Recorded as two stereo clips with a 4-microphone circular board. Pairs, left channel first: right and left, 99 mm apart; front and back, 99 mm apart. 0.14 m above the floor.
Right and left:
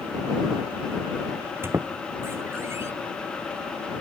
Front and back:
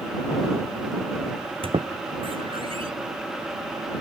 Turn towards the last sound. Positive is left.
turn(degrees=155)